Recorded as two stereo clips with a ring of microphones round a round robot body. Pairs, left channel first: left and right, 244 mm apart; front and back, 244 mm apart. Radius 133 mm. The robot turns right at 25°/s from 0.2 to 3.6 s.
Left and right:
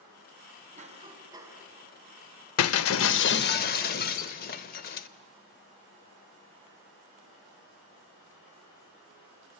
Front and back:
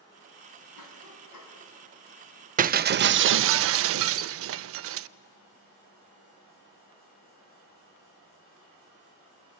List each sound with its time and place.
0.8 s a cough: 30° right, 4 m; by 1.6 s 10° right, 4 m
2.6 s breaking glass: 120° left, 0.5 m; by 5.1 s 145° left, 0.5 m